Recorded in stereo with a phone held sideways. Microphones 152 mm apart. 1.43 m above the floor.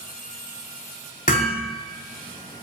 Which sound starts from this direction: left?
Hammering, at 1.3 s.